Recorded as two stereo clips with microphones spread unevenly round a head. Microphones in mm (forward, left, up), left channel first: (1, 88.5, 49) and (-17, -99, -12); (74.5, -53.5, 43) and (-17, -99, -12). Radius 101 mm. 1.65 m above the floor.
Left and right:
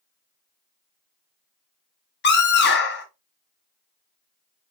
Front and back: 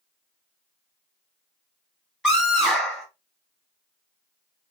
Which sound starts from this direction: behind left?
A scream, at 2.2 s.